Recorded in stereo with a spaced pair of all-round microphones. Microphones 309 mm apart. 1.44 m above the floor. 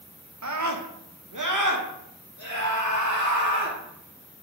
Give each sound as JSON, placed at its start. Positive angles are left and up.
{"t": 0.4, "sound": "a scream", "side_deg": -60, "distance_m": 0.9}